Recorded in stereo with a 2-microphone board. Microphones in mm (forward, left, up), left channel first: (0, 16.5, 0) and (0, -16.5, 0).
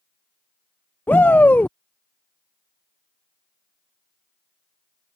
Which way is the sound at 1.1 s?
75° left (ahead or behind).